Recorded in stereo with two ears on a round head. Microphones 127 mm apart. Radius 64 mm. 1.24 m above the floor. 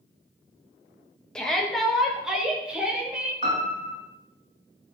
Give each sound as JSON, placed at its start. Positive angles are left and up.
{"t": 1.4, "sound": "a shout", "side_deg": 5, "distance_m": 1.5}
{"t": 3.4, "sound": "a piano", "side_deg": -30, "distance_m": 4.0}